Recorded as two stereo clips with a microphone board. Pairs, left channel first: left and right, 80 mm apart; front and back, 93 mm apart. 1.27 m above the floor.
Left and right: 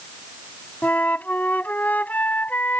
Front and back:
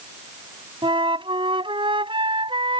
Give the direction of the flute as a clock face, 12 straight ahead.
7 o'clock.